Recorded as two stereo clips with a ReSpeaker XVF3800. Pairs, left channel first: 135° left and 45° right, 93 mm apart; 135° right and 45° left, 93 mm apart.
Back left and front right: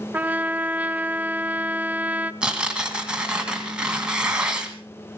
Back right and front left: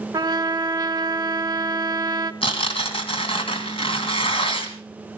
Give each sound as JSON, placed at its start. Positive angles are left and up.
{"t": 0.1, "sound": "a trumpet", "azimuth_deg": 20, "distance_m": 0.7}
{"t": 2.4, "sound": "tearing paper", "azimuth_deg": -125, "distance_m": 2.0}